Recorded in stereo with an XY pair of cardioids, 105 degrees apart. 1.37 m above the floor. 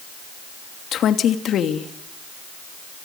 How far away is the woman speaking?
About 2.5 m.